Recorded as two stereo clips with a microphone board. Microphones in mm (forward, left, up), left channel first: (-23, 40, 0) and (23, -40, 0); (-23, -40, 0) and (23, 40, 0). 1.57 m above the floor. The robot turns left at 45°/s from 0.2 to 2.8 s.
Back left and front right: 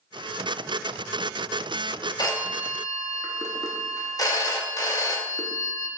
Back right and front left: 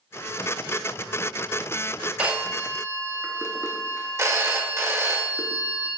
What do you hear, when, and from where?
2.2 s a phone ringing: 130° left, 0.6 m; by 5.9 s 100° left, 0.6 m